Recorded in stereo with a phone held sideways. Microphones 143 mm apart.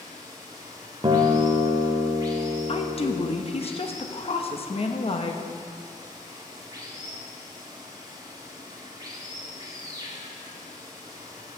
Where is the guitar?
35° right (ahead or behind), 0.7 m.